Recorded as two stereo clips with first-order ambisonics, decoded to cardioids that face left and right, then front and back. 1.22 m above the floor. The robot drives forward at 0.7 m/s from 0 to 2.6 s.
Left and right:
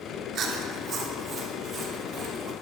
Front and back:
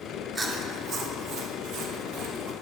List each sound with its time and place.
0.3 s chewing: 115° right, 0.9 m; by 2.5 s 160° right, 2.0 m